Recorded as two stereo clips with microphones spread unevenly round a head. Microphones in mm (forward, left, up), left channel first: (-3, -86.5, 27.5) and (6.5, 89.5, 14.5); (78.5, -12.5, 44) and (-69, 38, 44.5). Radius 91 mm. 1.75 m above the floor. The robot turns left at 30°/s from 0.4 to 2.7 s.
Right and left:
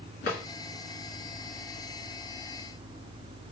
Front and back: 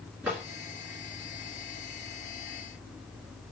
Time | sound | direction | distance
0.2 | a drawer | 125° right | 2.0 m